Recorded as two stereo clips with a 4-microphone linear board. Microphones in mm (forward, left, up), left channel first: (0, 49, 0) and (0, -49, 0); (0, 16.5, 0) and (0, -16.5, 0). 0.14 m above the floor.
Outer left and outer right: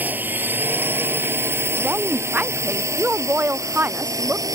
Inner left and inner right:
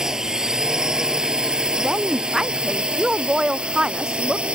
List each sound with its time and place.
0.0 s a drone: 20° right (ahead or behind); by 4.5 s 35° right (ahead or behind)
1.8 s a woman speaking: 20° right (ahead or behind)